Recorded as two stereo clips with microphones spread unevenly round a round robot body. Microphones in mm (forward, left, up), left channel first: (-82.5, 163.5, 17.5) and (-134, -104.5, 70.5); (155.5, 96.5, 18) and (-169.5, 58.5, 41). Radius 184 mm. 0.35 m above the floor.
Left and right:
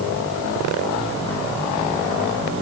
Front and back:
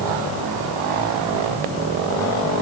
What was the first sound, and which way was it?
Only background noise.